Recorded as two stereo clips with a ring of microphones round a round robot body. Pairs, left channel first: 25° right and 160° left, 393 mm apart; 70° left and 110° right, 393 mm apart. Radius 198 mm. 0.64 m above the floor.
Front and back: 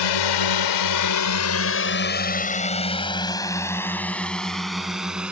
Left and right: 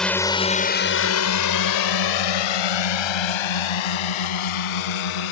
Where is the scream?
No scream in this recording.